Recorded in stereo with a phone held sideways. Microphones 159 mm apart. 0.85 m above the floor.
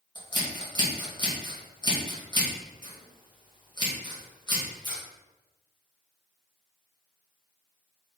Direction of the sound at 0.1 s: 30° left (ahead or behind).